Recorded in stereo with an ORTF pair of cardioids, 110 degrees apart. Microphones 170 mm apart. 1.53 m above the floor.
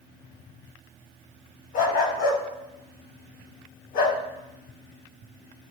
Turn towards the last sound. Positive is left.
turn(degrees=70)